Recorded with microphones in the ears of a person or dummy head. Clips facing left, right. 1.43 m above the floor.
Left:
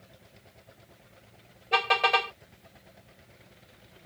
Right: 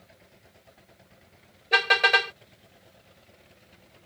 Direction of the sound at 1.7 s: 20° right (ahead or behind).